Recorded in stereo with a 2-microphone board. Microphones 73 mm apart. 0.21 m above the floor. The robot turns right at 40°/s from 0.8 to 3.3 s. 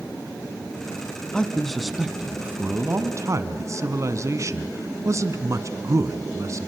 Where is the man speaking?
160° left, 1.5 m; by 6.7 s 120° right, 1.5 m.